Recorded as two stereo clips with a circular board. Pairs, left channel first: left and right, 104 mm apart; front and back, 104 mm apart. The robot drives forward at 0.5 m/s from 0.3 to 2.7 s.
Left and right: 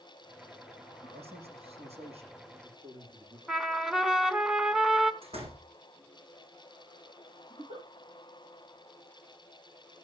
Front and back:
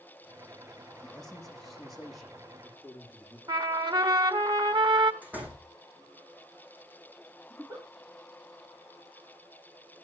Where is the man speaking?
85° right, 7.5 m; by 3.4 s 95° right, 7.5 m.